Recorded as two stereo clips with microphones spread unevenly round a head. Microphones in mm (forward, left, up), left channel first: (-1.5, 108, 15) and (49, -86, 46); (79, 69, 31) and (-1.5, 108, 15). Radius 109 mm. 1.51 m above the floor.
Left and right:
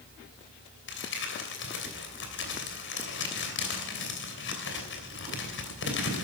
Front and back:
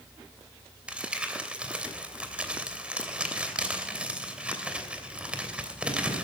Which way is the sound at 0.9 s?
70° left.